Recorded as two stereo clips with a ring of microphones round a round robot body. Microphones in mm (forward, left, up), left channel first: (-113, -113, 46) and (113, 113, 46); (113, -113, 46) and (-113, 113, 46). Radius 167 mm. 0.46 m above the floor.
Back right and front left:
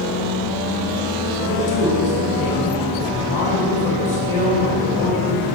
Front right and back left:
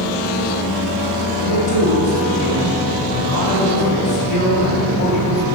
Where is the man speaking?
70° right, 2.5 m.